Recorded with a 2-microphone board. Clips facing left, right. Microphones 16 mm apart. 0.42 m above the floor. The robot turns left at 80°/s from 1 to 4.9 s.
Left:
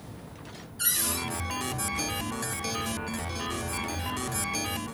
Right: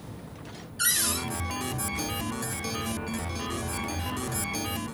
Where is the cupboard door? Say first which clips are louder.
Right 3 dB; 25° right (ahead or behind), 2 m; by 1.2 s 10° right (ahead or behind), 2 m.